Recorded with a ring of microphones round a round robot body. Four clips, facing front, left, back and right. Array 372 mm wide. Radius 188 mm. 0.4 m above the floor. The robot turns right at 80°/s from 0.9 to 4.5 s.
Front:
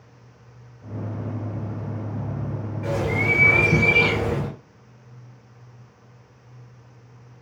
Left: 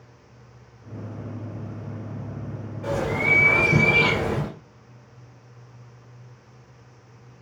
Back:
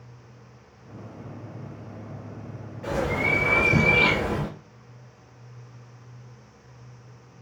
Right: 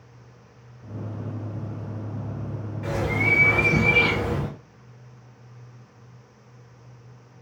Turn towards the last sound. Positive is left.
turn(degrees=80)